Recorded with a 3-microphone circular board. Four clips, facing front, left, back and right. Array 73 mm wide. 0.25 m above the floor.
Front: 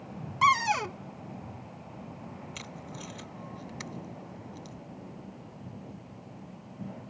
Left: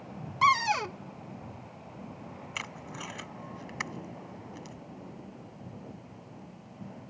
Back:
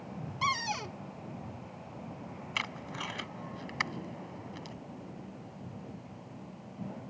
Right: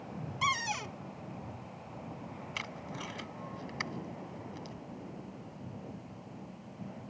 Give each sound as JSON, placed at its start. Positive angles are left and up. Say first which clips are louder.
{"t": 0.4, "sound": "a cupboard door", "louder": "left 9 dB, front 9 dB", "azimuth_deg": 50}
{"t": 2.5, "sound": "tape being pulled", "louder": "left 2 dB, back 4 dB", "azimuth_deg": 160}